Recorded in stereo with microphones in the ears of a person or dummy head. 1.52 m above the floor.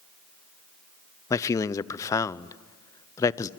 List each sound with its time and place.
1.3 s a man speaking: 20° left (ahead or behind), 0.6 m